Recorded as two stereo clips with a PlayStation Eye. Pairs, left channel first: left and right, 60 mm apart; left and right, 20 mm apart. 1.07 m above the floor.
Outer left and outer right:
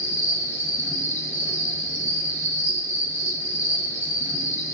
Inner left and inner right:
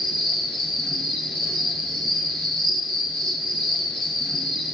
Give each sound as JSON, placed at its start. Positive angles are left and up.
{"t": 0.0, "sound": "an insect", "side_deg": 45, "distance_m": 1.2}